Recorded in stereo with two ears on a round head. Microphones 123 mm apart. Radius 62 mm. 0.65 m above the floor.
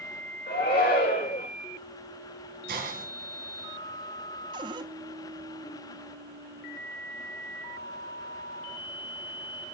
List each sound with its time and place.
0.5 s a shout: 80° left, 8.5 m
2.7 s a hiss: 65° right (ahead or behind), 4 m
4.5 s a cupboard door: 35° right (ahead or behind), 0.8 m